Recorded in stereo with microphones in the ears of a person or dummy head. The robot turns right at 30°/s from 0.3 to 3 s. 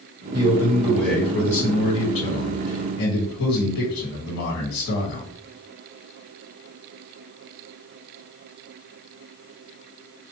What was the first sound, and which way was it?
A man speaking, 20° right.